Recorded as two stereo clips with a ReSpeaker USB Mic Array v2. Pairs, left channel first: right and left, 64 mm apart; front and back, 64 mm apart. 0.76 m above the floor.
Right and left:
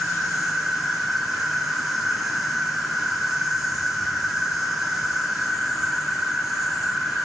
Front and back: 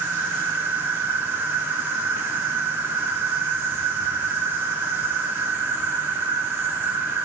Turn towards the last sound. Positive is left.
turn(degrees=180)